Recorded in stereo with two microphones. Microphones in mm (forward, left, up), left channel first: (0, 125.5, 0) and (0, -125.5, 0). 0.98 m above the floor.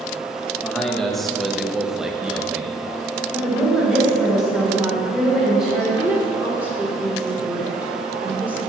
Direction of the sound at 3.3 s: Centre (ahead or behind).